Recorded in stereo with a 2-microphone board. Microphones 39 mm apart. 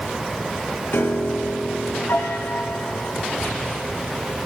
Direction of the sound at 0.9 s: 85° left.